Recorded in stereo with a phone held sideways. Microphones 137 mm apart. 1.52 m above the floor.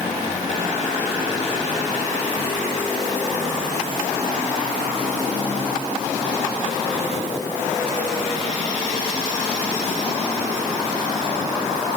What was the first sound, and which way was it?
Only background noise.